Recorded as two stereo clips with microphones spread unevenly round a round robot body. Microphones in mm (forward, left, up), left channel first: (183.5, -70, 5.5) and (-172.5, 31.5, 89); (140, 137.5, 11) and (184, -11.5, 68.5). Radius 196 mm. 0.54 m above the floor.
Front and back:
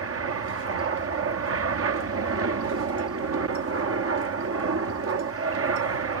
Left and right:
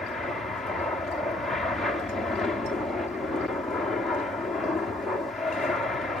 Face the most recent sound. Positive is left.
turn(degrees=140)